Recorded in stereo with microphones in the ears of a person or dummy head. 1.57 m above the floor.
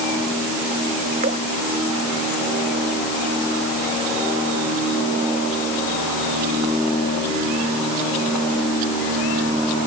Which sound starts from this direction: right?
Dripping, at 1.2 s.